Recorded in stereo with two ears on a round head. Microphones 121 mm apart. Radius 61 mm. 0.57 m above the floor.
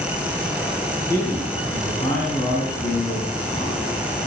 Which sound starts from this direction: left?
A man speaking, at 1.1 s.